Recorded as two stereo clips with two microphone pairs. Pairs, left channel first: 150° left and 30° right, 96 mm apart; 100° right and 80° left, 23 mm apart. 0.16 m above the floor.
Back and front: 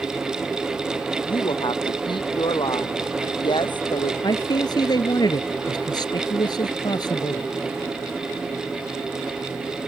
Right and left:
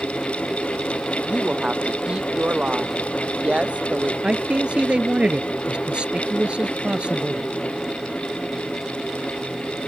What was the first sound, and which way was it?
A woman speaking, 115° left.